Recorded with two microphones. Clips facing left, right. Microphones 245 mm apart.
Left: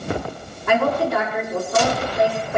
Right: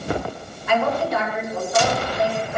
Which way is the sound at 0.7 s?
85° left.